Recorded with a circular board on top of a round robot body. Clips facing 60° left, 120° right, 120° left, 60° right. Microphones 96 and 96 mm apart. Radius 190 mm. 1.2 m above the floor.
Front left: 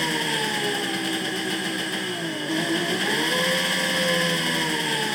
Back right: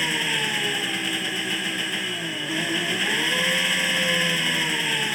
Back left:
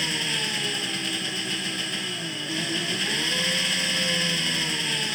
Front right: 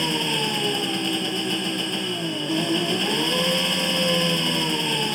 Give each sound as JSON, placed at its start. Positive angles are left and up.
{"t": 0.0, "sound": "an engine running", "azimuth_deg": -15}